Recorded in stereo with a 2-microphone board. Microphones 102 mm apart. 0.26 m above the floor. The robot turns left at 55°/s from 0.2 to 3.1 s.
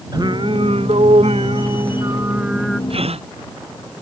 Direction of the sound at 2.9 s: 65° right (ahead or behind).